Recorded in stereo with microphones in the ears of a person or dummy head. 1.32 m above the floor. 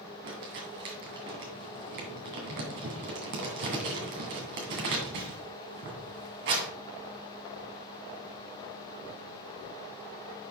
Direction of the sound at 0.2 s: 50° right (ahead or behind).